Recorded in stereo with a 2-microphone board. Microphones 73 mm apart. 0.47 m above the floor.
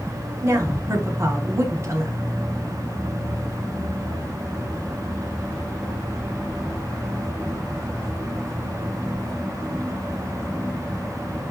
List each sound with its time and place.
0.4 s a woman speaking: 35° right (ahead or behind), 1.2 m